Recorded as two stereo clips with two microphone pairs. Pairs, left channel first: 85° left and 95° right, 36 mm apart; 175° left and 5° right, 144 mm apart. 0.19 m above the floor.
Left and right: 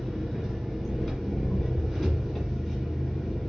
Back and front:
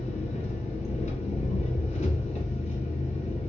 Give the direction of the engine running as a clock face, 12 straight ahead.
6 o'clock.